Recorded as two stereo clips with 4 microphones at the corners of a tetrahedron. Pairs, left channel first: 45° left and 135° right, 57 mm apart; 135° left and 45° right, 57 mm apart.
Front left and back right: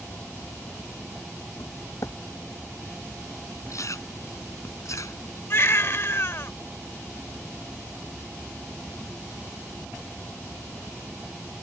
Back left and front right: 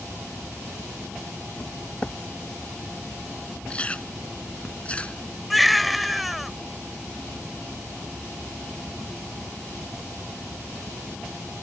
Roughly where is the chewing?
Ahead left.